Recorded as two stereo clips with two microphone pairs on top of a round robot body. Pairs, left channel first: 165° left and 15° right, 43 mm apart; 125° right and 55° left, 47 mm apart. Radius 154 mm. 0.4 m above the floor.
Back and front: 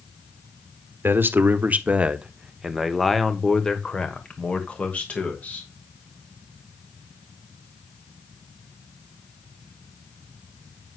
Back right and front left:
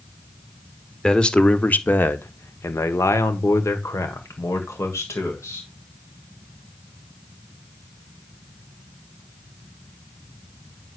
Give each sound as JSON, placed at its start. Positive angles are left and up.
{"t": 1.0, "sound": "a man speaking", "azimuth_deg": -40, "distance_m": 1.4}